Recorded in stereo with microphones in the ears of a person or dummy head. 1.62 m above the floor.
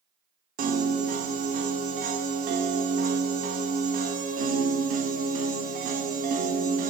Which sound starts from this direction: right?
A piano, at 0.6 s.